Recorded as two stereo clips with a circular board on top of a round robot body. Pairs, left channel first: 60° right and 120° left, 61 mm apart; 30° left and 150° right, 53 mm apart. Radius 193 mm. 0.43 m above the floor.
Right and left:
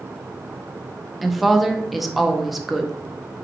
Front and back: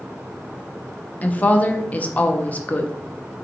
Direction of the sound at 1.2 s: 30° left.